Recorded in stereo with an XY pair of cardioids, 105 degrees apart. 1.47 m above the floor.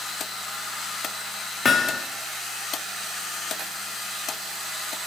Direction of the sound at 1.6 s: 40° left.